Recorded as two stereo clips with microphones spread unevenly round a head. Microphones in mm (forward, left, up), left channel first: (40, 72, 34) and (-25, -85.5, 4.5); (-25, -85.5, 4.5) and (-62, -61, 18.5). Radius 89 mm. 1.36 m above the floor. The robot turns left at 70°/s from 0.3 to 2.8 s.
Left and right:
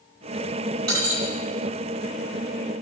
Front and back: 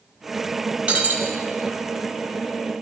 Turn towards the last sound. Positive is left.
turn(degrees=75)